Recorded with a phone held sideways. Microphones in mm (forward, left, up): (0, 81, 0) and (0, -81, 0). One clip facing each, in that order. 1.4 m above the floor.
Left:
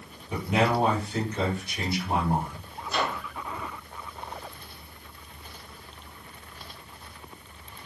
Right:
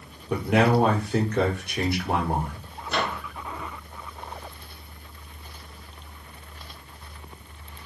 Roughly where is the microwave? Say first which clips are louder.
Right 1 dB; right.